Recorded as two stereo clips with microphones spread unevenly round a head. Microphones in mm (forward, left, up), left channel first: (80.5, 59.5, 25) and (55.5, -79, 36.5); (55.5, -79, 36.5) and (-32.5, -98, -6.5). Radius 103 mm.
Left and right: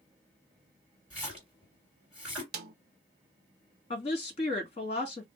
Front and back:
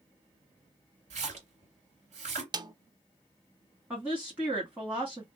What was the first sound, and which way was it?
A splash, 175° left.